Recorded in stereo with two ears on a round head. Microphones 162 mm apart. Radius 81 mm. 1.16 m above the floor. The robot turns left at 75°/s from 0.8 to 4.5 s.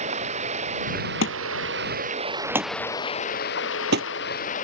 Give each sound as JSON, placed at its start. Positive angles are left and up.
{"t": 0.0, "sound": "running water", "azimuth_deg": -40}
{"t": 1.2, "sound": "a thud", "side_deg": 85}